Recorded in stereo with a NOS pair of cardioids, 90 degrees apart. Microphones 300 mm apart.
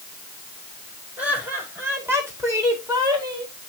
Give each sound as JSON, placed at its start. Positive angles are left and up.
{"t": 1.2, "sound": "laughter", "azimuth_deg": -5, "distance_m": 5.0}